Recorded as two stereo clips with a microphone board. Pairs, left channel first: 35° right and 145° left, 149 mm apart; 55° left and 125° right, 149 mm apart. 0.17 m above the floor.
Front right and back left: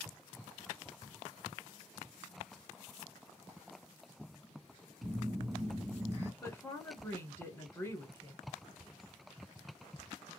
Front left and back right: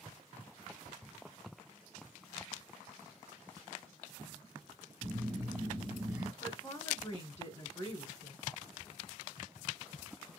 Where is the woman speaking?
20° left, 1.1 m.